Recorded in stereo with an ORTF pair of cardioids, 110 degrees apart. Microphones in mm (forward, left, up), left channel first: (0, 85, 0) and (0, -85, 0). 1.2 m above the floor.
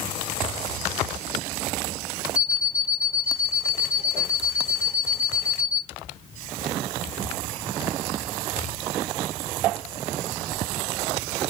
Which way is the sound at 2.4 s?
55° left.